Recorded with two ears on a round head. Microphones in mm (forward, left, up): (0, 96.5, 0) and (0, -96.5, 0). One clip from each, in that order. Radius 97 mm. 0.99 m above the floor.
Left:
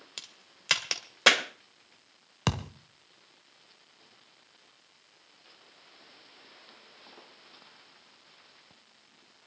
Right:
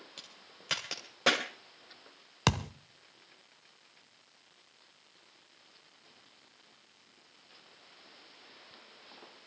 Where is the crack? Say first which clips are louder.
Left 8 dB; 45° left (ahead or behind), 2 m.